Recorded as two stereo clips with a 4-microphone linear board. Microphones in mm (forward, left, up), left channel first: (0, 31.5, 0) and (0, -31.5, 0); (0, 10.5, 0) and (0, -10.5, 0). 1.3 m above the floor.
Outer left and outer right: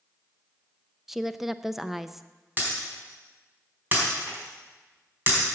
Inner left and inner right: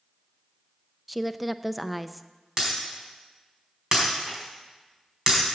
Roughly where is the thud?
No thud in this recording.